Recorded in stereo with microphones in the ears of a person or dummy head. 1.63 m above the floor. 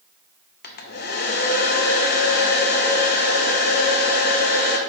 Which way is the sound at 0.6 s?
55° left (ahead or behind).